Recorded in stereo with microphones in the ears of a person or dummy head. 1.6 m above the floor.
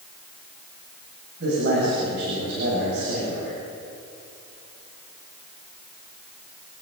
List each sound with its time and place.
1.4 s a man speaking: 65° right (ahead or behind), 8.5 m